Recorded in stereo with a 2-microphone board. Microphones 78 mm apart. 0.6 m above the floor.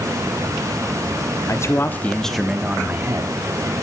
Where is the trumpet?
No trumpet in this recording.